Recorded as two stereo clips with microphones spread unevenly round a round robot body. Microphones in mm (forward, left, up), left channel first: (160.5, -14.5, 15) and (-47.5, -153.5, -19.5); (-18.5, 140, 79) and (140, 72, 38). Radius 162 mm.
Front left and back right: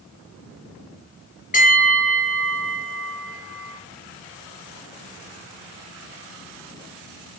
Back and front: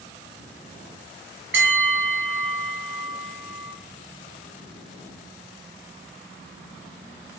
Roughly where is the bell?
Ahead right.